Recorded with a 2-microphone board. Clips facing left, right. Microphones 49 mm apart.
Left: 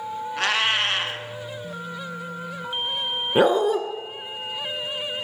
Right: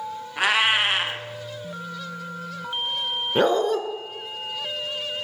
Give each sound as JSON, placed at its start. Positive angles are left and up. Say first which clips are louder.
{"t": 0.4, "sound": "a cat meowing", "louder": "right 3 dB", "side_deg": -10, "distance_m": 0.6}
{"t": 3.4, "sound": "a dog barking", "louder": "left 2 dB", "side_deg": 10, "distance_m": 0.6}